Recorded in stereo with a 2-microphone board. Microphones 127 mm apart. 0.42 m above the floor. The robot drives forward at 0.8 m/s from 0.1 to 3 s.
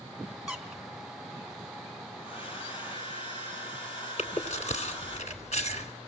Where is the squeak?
5° right (ahead or behind), 2.5 m.